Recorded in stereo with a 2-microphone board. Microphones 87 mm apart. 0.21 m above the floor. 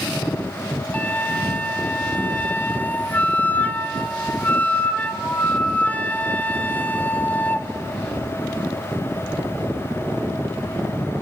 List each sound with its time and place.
0.9 s a flute: 20° left (ahead or behind), 0.9 m